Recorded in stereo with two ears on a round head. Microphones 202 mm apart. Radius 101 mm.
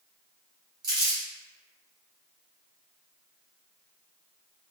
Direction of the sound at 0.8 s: 20° right (ahead or behind).